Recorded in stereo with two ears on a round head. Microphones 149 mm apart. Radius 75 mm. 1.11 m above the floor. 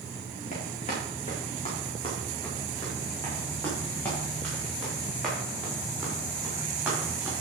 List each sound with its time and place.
0.5 s running footsteps: 45° left (ahead or behind), 5.5 m; by 7.3 s 10° right (ahead or behind), 8.5 m